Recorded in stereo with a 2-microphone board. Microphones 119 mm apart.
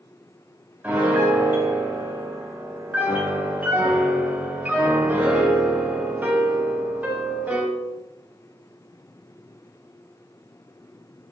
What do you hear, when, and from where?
0.8 s a piano: 15° right (ahead or behind), 0.6 m